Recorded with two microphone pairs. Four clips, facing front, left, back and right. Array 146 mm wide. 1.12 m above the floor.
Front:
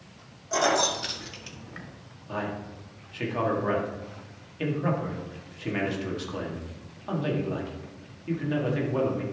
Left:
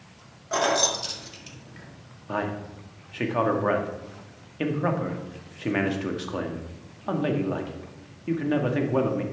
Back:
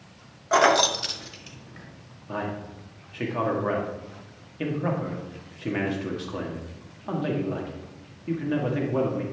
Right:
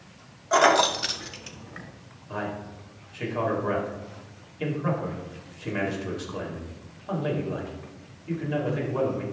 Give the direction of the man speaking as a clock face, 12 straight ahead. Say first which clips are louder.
Left 3 dB, back 1 dB; 9 o'clock.